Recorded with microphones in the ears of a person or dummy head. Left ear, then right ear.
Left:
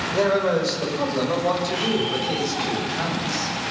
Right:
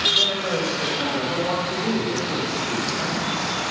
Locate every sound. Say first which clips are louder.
0.1 s a man speaking: even; 80° left, 7.5 m; by 3.5 s 90° left, 12 m